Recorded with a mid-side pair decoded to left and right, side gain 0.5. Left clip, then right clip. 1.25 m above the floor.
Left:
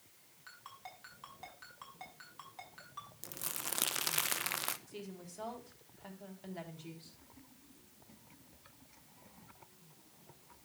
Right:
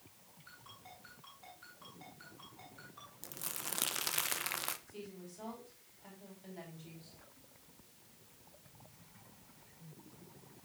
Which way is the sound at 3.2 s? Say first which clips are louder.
Even; 15° left.